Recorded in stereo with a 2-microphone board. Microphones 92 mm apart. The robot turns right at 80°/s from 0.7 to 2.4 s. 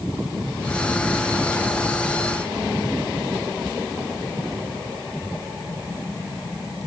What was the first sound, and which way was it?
Only background noise.